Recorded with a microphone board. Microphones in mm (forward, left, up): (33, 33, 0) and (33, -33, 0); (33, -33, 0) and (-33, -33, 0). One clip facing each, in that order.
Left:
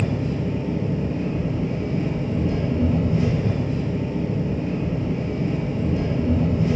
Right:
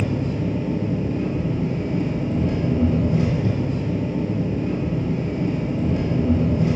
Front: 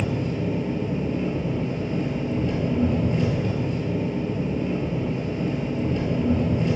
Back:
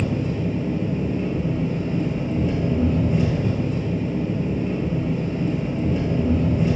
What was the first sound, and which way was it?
An engine running, 100° right.